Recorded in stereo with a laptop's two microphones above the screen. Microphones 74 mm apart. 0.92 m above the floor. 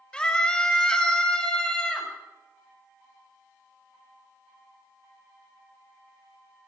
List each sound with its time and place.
0.1 s a scream: 10° left (ahead or behind), 6 m